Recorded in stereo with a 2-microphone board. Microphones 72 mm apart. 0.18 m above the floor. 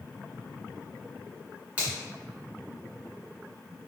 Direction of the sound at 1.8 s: 20° right (ahead or behind).